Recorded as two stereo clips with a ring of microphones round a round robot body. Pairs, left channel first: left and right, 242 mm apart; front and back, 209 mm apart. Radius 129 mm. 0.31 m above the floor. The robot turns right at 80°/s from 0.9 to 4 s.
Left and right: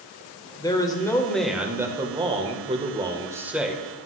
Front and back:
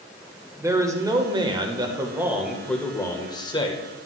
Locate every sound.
0.6 s a man speaking: 135° left, 1.0 m; by 4.1 s 25° left, 1.0 m